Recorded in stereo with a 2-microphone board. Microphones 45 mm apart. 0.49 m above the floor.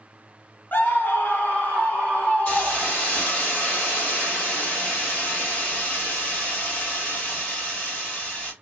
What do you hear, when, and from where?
0.7 s a scream: 45° left (ahead or behind), 0.9 m; by 3.2 s 30° left (ahead or behind), 1.6 m
2.5 s a hiss: 30° left (ahead or behind), 1.7 m